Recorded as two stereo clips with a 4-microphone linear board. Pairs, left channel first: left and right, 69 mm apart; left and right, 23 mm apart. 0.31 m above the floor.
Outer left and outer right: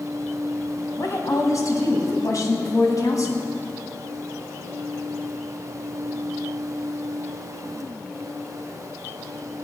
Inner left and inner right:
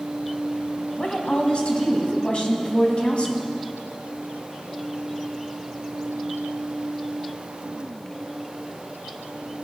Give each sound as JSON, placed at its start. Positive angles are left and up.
{"t": 0.9, "sound": "a woman speaking", "side_deg": 60, "distance_m": 2.5}